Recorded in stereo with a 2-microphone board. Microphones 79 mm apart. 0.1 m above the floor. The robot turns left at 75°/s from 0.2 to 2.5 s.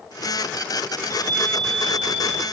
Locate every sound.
1.0 s a chime: 55° left, 0.9 m; by 2.4 s 55° right, 0.9 m